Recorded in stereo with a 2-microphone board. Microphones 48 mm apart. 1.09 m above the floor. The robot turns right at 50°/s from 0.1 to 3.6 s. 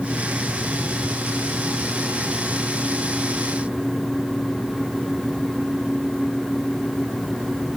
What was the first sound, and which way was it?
Only background noise.